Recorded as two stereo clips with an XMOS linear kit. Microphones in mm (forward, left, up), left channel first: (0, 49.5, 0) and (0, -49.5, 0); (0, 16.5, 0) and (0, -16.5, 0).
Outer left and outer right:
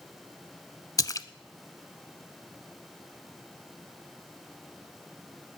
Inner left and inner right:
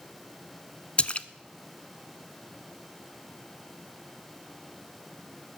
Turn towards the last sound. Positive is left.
turn(degrees=35)  # may be behind; listen again after turning